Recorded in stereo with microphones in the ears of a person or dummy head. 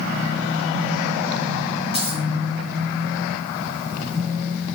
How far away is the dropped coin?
About 1.7 m.